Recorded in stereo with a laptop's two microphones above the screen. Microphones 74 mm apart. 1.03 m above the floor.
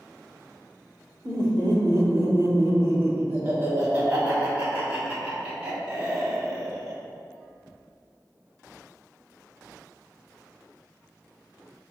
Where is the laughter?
60° right (ahead or behind), 1.0 m; by 7.0 s 5° right (ahead or behind), 3 m.